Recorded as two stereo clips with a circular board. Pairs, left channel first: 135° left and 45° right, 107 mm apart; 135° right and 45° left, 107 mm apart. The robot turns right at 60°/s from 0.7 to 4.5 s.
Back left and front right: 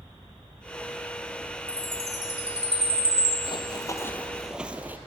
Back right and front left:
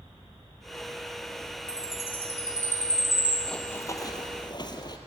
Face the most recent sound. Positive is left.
turn(degrees=-110)